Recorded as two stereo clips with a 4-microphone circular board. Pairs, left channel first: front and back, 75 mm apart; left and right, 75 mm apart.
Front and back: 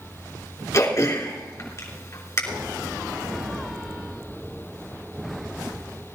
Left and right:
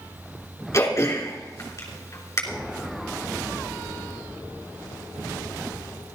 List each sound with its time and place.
0.7 s throat clearing: 40° left, 3 m